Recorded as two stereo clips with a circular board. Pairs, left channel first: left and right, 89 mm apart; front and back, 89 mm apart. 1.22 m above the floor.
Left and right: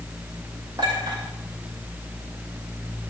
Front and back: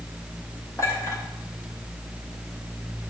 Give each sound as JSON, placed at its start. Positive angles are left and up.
{"t": 0.8, "sound": "a clink", "azimuth_deg": -55, "distance_m": 3.0}